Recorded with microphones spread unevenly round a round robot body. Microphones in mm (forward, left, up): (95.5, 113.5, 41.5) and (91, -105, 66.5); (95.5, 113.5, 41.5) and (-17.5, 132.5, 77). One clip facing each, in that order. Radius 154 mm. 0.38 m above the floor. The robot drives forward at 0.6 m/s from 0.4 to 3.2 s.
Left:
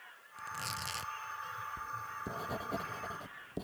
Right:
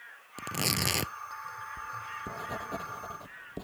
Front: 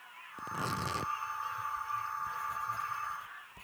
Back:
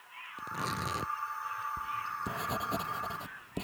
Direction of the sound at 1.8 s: 175° left.